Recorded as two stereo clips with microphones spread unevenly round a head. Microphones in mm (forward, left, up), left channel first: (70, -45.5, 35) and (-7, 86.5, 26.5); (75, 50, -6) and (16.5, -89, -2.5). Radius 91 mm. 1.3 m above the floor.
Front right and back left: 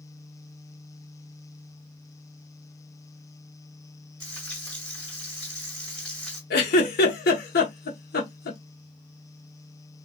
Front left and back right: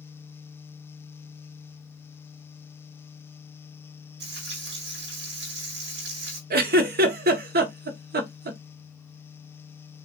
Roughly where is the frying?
Behind right.